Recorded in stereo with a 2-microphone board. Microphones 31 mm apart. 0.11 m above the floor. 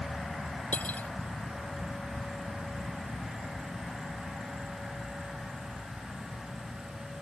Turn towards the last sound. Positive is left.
turn(degrees=65)  # may be behind; listen again after turning